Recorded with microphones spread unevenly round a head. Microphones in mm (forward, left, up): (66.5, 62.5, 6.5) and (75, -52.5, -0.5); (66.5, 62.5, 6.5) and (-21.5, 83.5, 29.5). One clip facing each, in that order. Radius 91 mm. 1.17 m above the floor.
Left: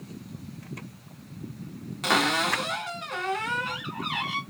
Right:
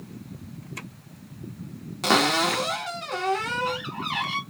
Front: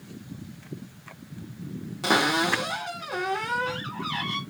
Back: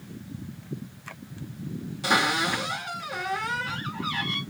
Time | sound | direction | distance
2.0 | a cupboard door | 50° right | 0.8 m